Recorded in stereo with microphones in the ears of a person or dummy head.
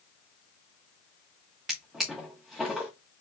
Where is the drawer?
Centre (ahead or behind), 0.7 m.